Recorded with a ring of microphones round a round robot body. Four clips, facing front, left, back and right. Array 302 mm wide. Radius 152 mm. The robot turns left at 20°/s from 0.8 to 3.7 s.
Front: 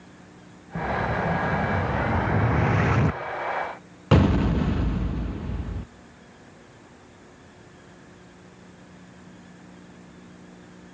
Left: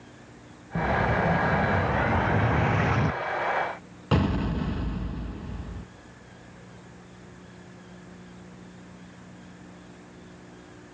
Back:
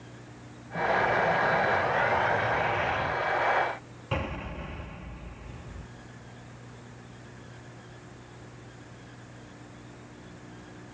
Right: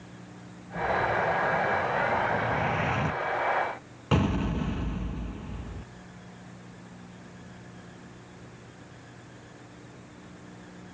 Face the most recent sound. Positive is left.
turn(degrees=5)